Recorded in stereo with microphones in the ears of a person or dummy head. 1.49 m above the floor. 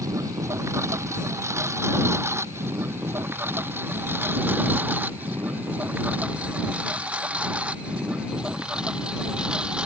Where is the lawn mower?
15° right (ahead or behind); by 9.9 s 5° right (ahead or behind).